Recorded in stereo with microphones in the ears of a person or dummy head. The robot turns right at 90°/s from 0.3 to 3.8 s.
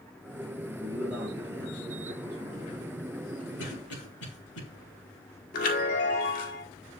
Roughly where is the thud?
No thud in this recording.